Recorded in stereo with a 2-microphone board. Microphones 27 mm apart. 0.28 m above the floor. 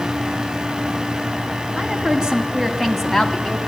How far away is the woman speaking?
About 2 m.